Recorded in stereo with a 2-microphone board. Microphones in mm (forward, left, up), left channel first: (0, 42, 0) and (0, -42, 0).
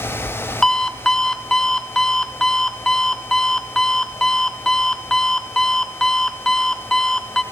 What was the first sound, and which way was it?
An alarm clock, 5° left (ahead or behind).